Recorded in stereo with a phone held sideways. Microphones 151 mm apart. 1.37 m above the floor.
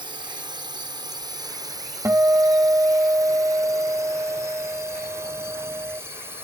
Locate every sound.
0.0 s a drone: 30° right (ahead or behind); by 6.4 s 15° right (ahead or behind)
2.0 s a guitar: 15° right (ahead or behind)